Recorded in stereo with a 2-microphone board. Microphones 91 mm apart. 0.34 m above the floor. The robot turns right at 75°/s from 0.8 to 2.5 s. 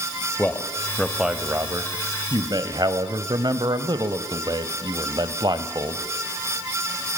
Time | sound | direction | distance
0.4 | a man speaking | 160° left | 1.6 m